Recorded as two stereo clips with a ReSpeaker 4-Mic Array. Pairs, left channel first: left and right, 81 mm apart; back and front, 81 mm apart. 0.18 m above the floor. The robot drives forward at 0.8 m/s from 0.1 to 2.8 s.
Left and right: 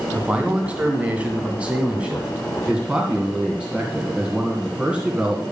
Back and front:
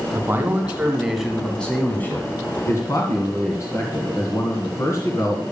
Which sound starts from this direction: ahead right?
A man speaking, at 0.1 s.